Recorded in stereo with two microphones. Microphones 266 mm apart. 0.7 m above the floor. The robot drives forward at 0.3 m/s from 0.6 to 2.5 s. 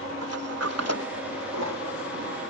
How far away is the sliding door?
About 1.5 m.